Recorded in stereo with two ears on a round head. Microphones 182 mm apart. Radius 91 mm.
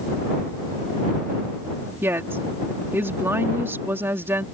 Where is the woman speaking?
10° right (ahead or behind).